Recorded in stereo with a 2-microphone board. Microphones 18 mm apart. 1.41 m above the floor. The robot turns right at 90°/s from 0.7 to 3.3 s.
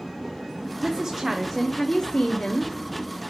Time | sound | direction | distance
0.8 | a woman speaking | 70° right | 0.8 m